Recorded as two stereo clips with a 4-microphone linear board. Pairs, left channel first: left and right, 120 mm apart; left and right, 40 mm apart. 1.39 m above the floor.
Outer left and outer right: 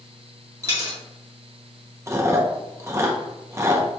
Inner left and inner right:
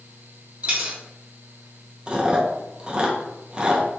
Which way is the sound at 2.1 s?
25° right (ahead or behind).